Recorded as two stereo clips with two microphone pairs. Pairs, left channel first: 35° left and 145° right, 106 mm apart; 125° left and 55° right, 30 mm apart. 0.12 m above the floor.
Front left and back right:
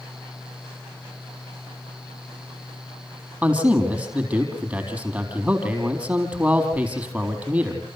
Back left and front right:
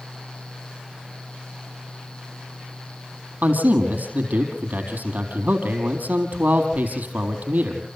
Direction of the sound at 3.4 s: 75° right.